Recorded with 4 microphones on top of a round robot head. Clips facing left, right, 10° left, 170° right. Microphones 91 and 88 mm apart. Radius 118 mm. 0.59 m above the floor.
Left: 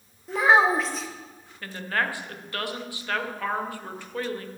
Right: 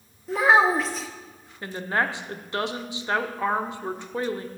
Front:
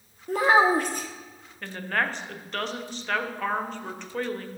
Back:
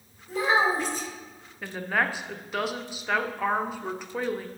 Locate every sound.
0.3 s a child speaking: straight ahead, 1.0 m
1.6 s a woman speaking: 105° right, 0.6 m